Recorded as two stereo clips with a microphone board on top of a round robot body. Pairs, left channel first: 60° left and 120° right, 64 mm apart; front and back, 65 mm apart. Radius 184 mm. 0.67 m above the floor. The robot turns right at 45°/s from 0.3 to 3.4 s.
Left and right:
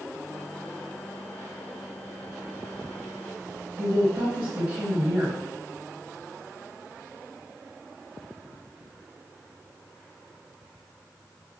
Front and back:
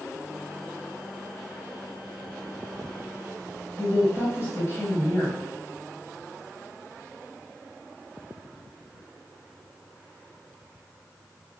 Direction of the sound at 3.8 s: 45° right.